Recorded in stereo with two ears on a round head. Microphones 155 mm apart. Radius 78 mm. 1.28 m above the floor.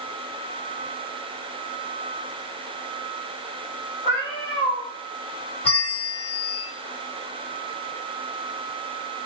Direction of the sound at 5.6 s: 10° left (ahead or behind).